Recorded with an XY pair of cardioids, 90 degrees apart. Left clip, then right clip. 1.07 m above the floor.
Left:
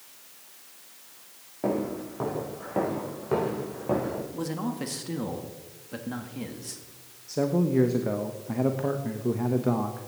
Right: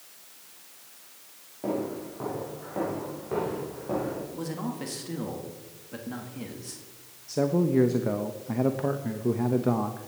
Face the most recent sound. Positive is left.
turn(degrees=-10)